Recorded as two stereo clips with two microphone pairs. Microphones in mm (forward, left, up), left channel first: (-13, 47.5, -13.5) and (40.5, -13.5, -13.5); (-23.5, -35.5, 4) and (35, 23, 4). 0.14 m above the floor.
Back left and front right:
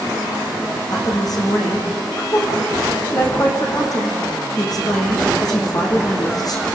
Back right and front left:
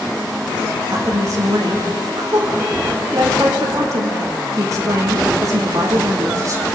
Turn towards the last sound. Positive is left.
turn(degrees=95)